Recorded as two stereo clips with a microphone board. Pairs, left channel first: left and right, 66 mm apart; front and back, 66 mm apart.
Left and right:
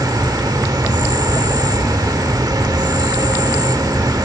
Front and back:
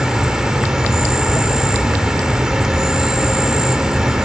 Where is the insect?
100° right, 1.2 m.